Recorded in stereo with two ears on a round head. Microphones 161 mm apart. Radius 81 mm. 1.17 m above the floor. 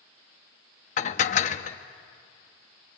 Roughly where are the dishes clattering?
Left.